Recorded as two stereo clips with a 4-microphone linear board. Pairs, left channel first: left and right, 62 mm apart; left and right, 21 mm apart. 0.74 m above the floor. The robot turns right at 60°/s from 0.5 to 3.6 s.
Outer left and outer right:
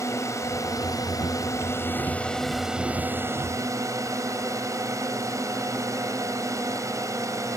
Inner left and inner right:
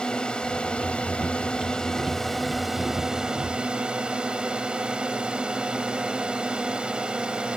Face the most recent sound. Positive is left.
turn(degrees=-115)